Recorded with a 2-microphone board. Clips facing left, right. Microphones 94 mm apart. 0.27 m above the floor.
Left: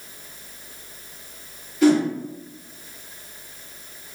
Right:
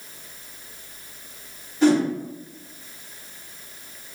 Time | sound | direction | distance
1.8 | a whoosh | 30° right (ahead or behind) | 1.3 m